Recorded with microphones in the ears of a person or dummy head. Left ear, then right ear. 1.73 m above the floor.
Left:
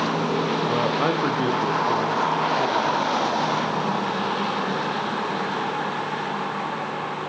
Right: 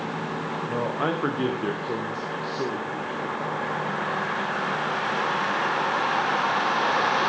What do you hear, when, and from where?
0.7 s a man speaking: 15° left (ahead or behind), 1.2 m; by 3.4 s 50° right (ahead or behind), 3.5 m